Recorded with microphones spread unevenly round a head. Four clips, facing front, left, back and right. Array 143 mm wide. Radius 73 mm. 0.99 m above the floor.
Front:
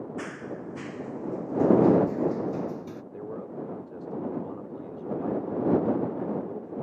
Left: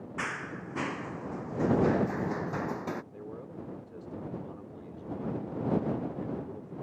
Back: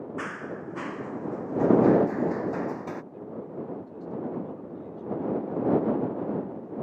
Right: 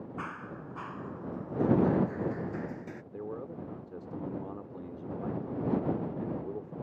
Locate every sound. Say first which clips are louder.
0.2 s running footsteps: left 6 dB, back 1 dB; 95° left; by 3.0 s 145° left
3.1 s a man speaking: right 3 dB, front 1 dB; 30° right